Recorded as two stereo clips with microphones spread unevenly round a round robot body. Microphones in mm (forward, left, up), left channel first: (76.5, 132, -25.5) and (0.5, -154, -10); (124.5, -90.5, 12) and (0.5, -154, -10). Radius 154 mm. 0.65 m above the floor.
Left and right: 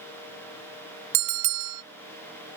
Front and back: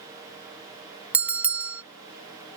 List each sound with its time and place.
1.1 s a bell: 75° right